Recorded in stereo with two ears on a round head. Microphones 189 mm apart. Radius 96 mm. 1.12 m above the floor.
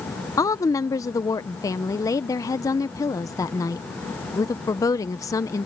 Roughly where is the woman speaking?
Centre.